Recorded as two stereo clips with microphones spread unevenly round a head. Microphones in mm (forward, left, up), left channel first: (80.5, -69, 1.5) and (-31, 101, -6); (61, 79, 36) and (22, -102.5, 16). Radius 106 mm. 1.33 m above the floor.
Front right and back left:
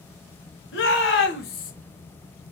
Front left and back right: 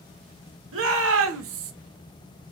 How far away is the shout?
About 1.5 m.